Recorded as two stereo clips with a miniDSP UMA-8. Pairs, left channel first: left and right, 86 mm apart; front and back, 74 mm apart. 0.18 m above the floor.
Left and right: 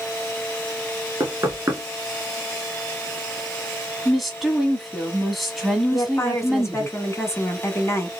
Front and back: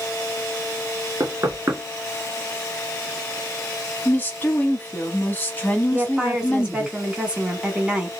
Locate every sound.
1.2 s knocking: 140° right, 1.8 m
4.0 s a woman speaking: straight ahead, 1.2 m
5.9 s a woman speaking: 115° left, 1.2 m